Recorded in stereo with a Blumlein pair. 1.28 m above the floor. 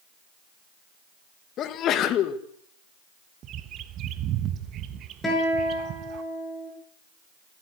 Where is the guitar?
15° left, 7.5 m.